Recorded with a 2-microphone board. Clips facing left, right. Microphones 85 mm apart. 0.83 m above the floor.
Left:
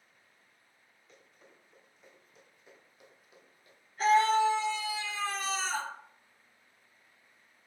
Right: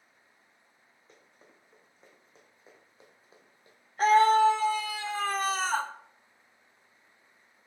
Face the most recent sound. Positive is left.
turn(degrees=-45)  # may be behind; listen again after turning